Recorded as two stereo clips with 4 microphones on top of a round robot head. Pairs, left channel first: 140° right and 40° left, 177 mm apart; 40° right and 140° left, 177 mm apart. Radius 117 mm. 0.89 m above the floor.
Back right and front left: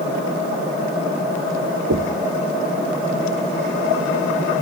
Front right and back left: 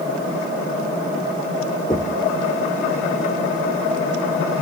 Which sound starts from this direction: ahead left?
Knocking, at 1.9 s.